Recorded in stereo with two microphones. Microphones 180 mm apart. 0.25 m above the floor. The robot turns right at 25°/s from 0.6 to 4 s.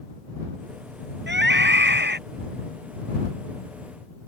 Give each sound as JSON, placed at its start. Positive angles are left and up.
{"t": 1.3, "sound": "a scream", "side_deg": -75}